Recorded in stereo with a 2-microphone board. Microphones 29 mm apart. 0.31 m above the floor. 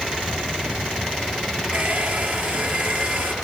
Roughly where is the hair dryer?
Right.